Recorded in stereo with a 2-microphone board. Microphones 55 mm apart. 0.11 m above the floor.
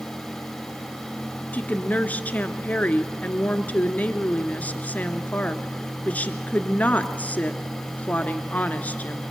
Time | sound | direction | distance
1.5 | a woman speaking | 30° left (ahead or behind) | 1.2 m